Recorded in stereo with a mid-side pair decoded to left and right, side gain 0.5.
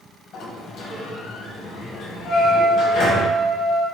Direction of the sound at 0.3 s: 60° left.